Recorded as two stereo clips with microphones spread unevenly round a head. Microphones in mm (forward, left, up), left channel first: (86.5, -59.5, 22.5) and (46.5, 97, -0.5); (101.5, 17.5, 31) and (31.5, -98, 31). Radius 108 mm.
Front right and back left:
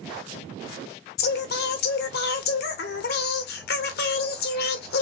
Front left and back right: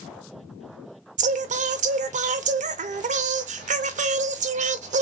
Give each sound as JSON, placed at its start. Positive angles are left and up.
{"t": 1.2, "sound": "singing", "azimuth_deg": -95, "distance_m": 0.7}